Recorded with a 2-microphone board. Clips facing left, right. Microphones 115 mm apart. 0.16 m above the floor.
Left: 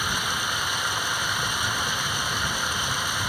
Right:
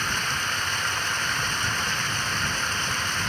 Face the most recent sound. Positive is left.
turn(degrees=10)  # may be behind; listen again after turning